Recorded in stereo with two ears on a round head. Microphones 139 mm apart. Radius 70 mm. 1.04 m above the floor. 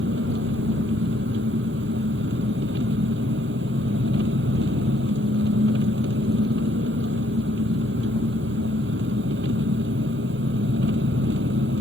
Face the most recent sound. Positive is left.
turn(degrees=-75)  # may be behind; listen again after turning